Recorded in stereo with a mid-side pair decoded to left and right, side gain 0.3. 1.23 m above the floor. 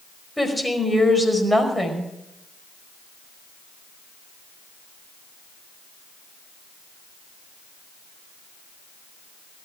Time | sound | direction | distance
0.4 | a woman speaking | 10° left | 5 m